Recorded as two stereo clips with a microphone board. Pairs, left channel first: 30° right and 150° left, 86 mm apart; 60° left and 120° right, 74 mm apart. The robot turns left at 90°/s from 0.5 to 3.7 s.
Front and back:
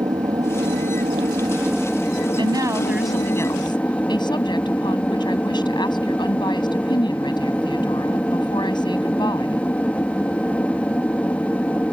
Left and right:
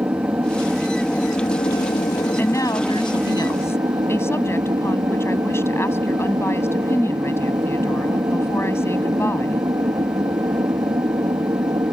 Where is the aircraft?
175° right; by 11.9 s 100° right.